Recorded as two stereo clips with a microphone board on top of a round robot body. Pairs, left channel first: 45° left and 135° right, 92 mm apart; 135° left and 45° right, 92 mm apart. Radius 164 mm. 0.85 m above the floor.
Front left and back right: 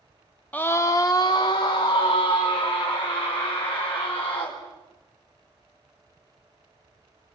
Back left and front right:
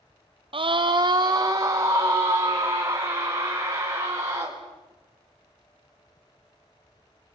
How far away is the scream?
About 0.7 m.